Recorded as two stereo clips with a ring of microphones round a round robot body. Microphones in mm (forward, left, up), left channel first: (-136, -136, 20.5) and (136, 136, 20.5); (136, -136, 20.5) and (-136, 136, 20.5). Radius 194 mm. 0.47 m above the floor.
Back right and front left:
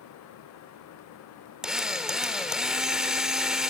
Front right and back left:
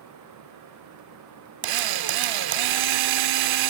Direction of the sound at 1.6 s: 135° left.